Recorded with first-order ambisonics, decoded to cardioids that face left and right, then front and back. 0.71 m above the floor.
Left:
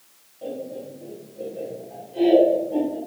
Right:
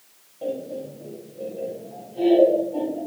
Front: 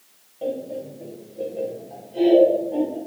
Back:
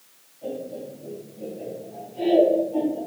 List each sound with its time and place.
0.4 s laughter: 20° right, 3.5 m; by 3.0 s 55° left, 3 m